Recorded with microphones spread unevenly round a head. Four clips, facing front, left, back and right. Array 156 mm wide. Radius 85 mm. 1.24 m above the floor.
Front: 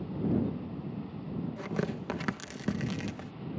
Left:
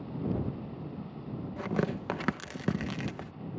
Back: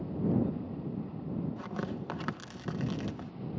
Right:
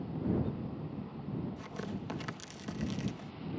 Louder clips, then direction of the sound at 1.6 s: Left 9 dB, front 3 dB; 70° left.